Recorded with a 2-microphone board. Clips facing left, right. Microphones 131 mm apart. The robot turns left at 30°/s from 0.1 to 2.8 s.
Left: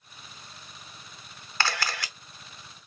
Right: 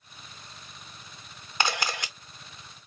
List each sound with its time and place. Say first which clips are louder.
1.6 s a camera shutter: right 1 dB; 20° right (ahead or behind), 0.6 m